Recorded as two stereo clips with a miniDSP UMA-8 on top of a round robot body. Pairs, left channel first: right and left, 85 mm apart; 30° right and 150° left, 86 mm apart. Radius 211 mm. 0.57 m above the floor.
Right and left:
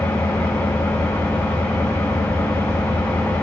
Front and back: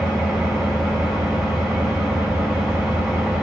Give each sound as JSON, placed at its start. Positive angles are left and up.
{"t": 0.0, "sound": "an engine running", "azimuth_deg": -150, "distance_m": 3.0}